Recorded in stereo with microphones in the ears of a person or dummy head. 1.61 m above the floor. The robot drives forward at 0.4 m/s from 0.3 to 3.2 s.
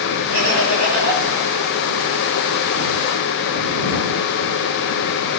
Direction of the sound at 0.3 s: 65° right (ahead or behind).